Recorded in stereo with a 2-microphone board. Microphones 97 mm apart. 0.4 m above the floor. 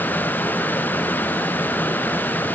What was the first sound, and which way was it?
Only background noise.